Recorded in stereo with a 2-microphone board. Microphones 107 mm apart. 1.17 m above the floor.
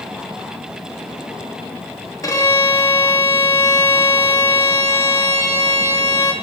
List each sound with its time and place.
2.2 s a violin: 30° left (ahead or behind), 2 m